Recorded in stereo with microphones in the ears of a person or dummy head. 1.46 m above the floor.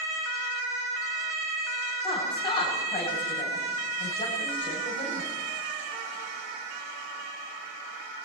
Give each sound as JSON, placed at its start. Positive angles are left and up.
{"t": 2.0, "sound": "a woman speaking", "side_deg": 30, "distance_m": 8.5}